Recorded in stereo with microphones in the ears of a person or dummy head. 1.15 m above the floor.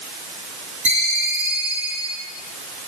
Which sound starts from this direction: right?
A ringtone, at 0.8 s.